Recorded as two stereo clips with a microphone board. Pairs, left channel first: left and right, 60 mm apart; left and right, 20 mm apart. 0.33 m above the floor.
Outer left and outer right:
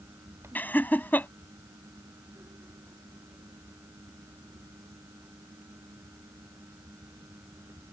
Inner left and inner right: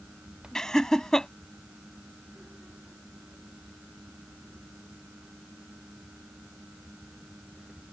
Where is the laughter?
30° left (ahead or behind).